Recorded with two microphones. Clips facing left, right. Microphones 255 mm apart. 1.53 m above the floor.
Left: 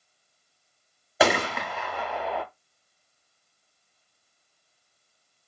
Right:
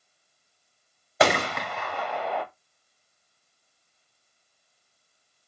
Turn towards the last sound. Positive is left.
turn(degrees=5)  # may be behind; listen again after turning